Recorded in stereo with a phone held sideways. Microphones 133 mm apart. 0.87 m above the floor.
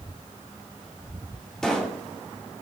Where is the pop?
5° left (ahead or behind), 2.5 m.